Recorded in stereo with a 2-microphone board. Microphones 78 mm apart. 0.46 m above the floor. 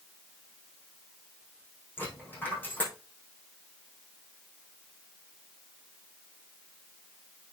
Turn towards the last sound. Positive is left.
turn(degrees=25)  # may be behind; listen again after turning